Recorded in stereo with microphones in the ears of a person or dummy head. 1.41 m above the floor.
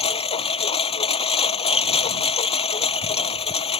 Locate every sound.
0.0 s a lawn mower: 30° left (ahead or behind)